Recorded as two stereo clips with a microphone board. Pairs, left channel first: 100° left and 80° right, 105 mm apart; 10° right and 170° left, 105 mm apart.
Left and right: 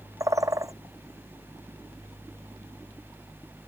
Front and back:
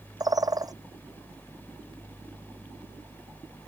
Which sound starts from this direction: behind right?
A bird, at 0.2 s.